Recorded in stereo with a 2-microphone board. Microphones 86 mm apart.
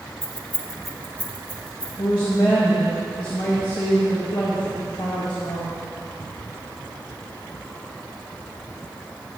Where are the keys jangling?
30° right (ahead or behind), 0.7 m; by 1.9 s 25° left (ahead or behind), 1.7 m.